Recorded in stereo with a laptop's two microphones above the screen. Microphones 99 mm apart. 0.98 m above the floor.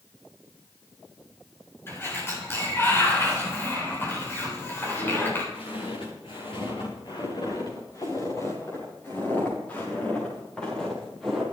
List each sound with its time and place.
1.9 s a sliding door: 25° left (ahead or behind), 4 m
4.8 s footsteps: 75° left (ahead or behind), 7.5 m; by 11.4 s centre (ahead or behind), 8 m